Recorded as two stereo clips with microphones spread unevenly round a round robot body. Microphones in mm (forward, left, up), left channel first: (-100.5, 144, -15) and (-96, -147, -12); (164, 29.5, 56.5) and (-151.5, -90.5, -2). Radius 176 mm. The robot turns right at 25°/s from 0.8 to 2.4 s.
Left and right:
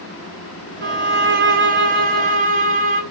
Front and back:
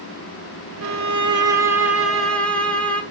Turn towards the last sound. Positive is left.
turn(degrees=-75)